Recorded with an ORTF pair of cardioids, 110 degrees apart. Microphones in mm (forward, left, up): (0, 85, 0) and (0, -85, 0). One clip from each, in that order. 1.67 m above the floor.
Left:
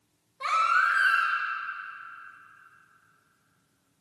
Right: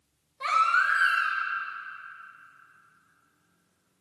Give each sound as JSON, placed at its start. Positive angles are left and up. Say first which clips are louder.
{"t": 0.4, "sound": "a baby crying", "louder": "even", "azimuth_deg": -5, "distance_m": 2.0}